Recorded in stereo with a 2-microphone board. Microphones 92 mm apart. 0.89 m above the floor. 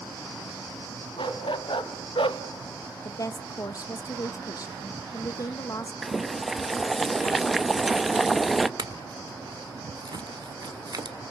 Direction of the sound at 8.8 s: 50° right (ahead or behind).